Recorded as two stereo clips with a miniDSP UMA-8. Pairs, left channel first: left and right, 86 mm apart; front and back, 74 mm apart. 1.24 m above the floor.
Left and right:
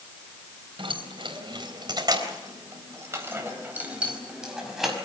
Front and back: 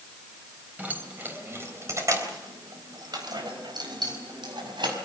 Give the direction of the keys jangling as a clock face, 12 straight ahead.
4 o'clock.